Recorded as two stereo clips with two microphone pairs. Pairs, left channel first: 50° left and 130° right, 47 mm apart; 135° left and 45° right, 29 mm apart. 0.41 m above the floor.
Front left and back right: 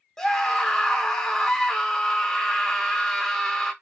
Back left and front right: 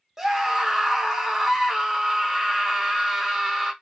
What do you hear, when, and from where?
0.2 s a scream: 10° left, 1.0 m